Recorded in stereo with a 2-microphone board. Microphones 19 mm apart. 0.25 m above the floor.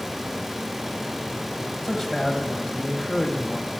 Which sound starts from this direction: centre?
A man speaking, at 1.8 s.